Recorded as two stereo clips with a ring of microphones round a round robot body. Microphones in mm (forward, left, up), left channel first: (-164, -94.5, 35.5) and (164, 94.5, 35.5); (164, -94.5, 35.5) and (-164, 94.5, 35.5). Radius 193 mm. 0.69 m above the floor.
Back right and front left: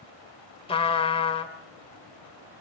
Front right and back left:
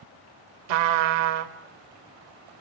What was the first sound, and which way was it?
A trumpet, 135° left.